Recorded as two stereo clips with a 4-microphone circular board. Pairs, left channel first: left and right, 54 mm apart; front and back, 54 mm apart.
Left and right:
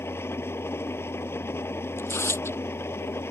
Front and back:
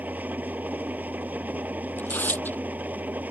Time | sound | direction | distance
0.0 | an engine running | 125° left | ?
2.0 | tearing paper | 55° left | ?